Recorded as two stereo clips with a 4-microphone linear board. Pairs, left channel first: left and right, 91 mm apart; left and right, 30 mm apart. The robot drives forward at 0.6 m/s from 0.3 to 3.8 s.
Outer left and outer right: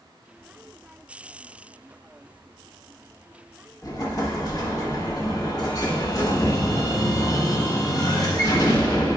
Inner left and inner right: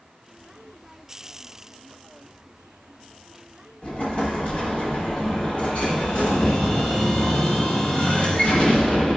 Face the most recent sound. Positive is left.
turn(degrees=45)  # may be behind; listen again after turning